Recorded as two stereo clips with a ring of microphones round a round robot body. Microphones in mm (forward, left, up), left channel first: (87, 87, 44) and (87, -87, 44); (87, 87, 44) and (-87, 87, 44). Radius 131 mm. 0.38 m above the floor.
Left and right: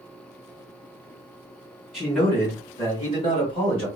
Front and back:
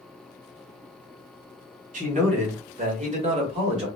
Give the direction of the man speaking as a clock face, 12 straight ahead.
6 o'clock.